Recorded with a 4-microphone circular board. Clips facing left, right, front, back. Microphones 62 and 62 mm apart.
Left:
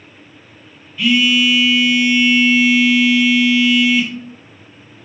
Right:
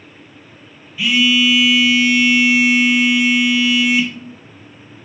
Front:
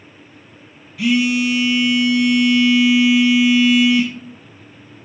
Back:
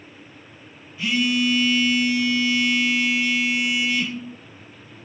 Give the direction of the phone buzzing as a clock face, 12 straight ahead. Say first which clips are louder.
Left 1 dB, front 5 dB; 12 o'clock.